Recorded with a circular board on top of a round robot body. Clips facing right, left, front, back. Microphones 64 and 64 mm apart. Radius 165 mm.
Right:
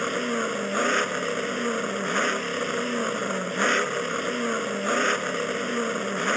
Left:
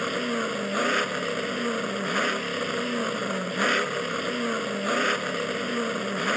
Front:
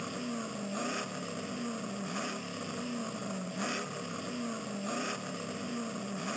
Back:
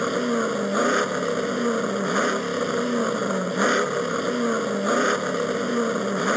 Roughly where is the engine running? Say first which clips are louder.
Right 1 dB, back 15 dB; behind.